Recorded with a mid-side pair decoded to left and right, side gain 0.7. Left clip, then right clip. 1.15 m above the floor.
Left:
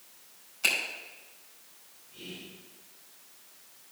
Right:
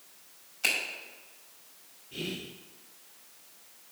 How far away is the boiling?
No boiling in this recording.